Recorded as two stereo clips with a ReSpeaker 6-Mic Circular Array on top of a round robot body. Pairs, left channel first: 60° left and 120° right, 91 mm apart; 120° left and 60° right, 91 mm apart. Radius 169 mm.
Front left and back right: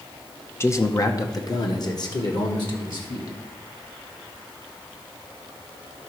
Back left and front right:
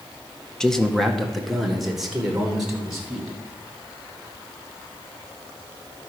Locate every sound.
0.6 s a man speaking: 45° left, 1.0 m; by 3.4 s 25° left, 2.5 m